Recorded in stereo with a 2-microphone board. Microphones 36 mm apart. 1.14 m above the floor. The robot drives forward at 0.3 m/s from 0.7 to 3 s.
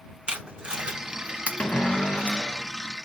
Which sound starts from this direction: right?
Tape being pulled, at 0.3 s.